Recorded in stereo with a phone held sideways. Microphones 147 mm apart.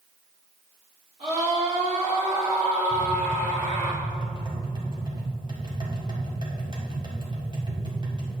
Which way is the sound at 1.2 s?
45° right (ahead or behind).